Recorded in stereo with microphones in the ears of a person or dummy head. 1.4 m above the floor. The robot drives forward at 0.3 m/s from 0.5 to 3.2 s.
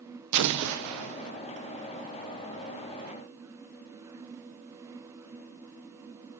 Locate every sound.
0.3 s an explosion: 85° right, 0.6 m; by 1.3 s 70° right (ahead or behind), 0.7 m